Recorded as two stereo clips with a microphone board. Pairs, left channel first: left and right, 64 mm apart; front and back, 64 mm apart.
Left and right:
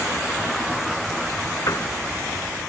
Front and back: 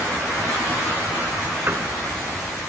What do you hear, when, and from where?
1.7 s a piano: 125° left